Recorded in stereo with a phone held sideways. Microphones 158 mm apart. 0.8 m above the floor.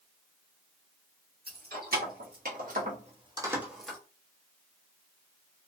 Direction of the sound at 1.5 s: 75° right (ahead or behind).